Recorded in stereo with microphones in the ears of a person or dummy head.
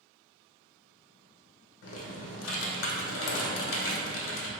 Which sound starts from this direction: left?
Typing on a keyboard, at 1.8 s.